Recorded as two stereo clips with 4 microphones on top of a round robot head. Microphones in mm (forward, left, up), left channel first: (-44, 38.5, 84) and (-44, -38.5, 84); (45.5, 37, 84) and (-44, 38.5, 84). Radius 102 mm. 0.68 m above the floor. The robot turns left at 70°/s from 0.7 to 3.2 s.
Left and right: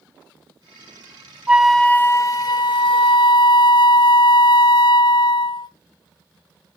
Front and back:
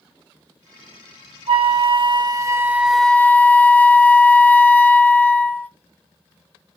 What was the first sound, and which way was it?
A flute, 165° right.